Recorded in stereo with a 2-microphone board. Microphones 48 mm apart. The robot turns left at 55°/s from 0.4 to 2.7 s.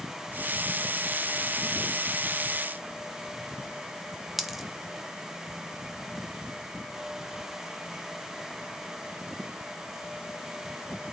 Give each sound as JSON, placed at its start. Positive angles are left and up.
{"t": 4.4, "sound": "a dropped coin", "side_deg": -5, "distance_m": 0.8}